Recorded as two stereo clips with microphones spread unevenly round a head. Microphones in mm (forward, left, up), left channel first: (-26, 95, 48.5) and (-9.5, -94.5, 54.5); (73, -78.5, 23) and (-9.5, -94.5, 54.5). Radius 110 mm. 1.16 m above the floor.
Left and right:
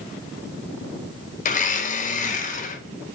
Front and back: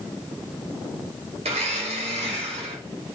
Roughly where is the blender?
Behind left.